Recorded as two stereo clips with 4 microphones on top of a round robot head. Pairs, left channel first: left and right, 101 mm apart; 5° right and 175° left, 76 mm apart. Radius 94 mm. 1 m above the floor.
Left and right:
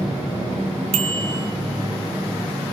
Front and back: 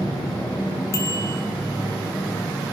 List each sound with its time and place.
0.9 s a bicycle bell: 65° right, 2 m